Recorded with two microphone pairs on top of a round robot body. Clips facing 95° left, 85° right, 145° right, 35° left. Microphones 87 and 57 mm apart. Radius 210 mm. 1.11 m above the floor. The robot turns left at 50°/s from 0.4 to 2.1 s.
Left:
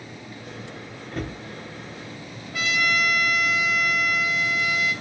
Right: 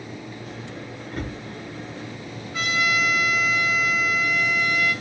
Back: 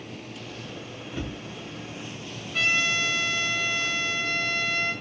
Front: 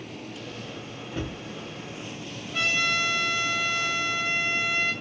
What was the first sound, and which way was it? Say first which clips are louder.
A cupboard door: left 1 dB, front 1 dB; 75° left.